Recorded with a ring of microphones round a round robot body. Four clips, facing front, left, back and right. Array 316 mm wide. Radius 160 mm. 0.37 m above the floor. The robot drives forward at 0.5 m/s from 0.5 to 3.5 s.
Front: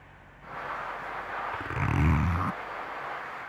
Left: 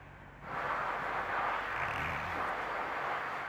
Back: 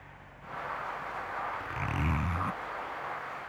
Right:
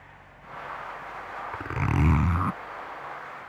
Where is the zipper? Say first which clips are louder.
Right 7 dB, front 4 dB; 60° right; by 2.6 s 75° right.